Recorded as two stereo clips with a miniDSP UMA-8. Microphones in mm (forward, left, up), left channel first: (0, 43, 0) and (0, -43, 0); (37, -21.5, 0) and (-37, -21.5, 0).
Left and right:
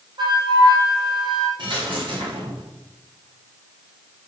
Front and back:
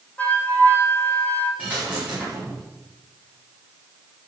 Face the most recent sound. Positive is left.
turn(degrees=-110)